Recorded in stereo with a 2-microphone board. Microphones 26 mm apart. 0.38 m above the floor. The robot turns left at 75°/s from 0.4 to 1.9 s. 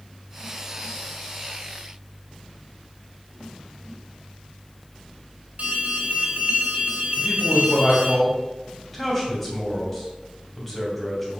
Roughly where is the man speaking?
Centre.